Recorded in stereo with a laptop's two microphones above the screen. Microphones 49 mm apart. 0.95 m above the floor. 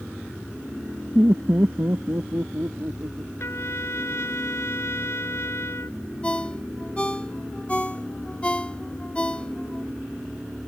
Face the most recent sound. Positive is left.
turn(degrees=25)  # may be behind; listen again after turning